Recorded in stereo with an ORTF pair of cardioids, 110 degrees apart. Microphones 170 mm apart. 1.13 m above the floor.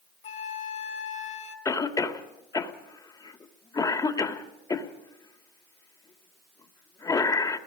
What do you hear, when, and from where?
0.2 s a flute: 45° left, 3.5 m
1.6 s a cough: 20° left, 2.5 m